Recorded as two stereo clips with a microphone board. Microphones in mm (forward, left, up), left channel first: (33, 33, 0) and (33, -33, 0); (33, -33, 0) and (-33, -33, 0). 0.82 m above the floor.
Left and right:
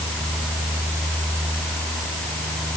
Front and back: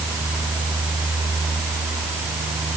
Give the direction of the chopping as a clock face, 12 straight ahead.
I don't hear chopping.